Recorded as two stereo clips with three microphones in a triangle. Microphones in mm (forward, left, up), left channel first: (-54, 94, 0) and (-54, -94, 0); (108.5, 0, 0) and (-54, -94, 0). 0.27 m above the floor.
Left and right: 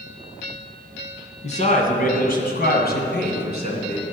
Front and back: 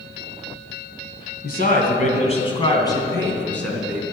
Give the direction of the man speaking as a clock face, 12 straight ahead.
10 o'clock.